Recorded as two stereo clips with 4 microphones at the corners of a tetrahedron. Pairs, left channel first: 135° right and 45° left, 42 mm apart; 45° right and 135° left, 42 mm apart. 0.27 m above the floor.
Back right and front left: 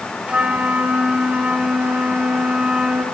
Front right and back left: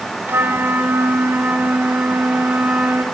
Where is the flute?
110° left, 2.5 m.